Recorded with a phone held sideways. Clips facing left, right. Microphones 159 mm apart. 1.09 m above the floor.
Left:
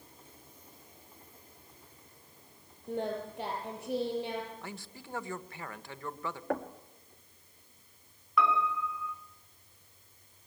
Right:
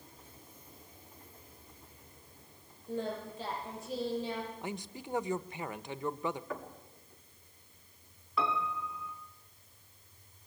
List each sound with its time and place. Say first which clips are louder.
2.9 s singing: left 2 dB; 65° left (ahead or behind), 9 m
4.6 s a man speaking: right 5 dB; 20° right (ahead or behind), 1.1 m
6.5 s knocking: left 7 dB; 60° left (ahead or behind), 1.7 m
8.4 s a piano: left 5 dB; 30° right (ahead or behind), 4 m